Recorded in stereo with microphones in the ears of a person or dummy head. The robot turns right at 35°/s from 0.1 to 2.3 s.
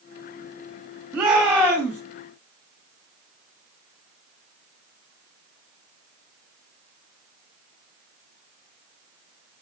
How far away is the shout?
About 7.5 m.